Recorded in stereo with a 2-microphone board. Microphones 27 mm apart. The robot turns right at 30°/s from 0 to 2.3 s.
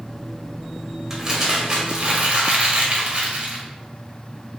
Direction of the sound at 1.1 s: 160° right.